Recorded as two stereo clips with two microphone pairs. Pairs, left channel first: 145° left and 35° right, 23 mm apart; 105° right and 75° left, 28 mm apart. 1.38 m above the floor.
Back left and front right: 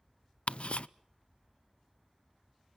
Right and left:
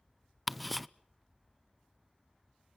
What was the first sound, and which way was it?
Ticking, 160° left.